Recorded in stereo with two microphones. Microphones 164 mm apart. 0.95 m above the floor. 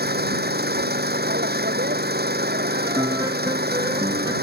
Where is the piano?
20° right (ahead or behind).